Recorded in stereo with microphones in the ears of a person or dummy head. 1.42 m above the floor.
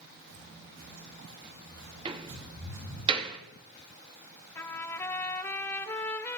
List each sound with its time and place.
0.3 s footsteps: 80° right, 8 m
2.0 s a door slam: 25° right (ahead or behind), 1.7 m
4.5 s a trumpet: 15° left (ahead or behind), 1.3 m